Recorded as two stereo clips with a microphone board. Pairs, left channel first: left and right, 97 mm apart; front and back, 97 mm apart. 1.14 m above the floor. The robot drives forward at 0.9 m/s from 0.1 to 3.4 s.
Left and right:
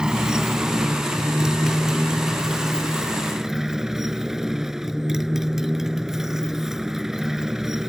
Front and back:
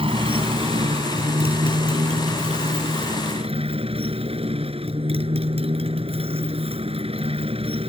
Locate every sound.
0.0 s a motorcycle: 170° right; by 7.9 s 175° right